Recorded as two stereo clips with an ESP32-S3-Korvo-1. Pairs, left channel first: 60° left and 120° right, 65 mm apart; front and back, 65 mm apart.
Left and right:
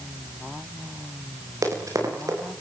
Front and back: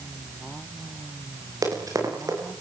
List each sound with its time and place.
1.6 s running footsteps: 150° right, 9.5 m